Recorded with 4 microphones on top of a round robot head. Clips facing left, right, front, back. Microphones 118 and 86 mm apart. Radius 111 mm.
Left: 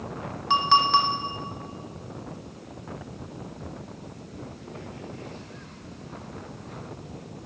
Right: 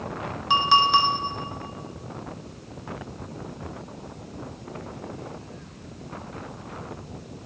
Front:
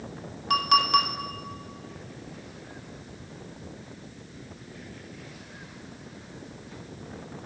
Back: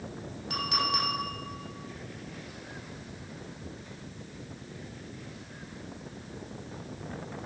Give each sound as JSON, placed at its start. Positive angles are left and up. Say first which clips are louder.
{"t": 0.5, "sound": "a clink", "louder": "right 1 dB, front 9 dB", "azimuth_deg": -10, "distance_m": 2.5}